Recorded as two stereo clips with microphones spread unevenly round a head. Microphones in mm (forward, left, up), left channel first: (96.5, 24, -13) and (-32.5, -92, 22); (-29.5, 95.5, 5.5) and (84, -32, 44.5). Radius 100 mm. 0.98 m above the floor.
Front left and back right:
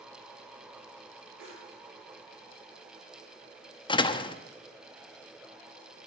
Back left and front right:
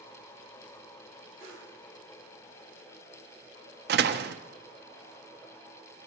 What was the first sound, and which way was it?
A whoosh, 120° right.